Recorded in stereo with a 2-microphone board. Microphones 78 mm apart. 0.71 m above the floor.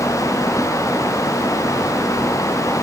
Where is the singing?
No singing in this recording.